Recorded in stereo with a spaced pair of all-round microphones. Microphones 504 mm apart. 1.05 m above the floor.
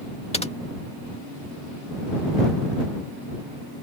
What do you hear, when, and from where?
0.3 s typing on a keyboard: 10° left (ahead or behind)